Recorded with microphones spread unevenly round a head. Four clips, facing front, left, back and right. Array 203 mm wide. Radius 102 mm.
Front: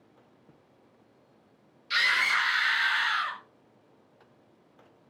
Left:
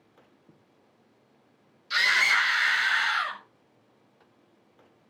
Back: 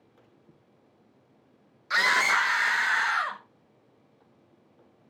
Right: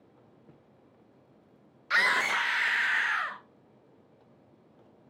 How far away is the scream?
About 0.8 m.